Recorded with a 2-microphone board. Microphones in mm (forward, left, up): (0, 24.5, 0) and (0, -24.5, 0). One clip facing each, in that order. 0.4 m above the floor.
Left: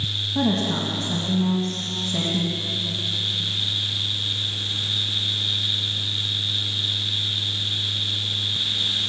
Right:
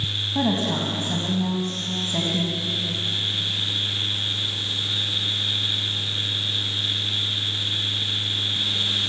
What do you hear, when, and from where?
0.3 s a woman speaking: 25° right (ahead or behind), 3 m